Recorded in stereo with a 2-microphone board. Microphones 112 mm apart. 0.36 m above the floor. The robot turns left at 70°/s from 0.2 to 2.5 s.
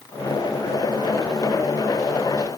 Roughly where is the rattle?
No rattle in this recording.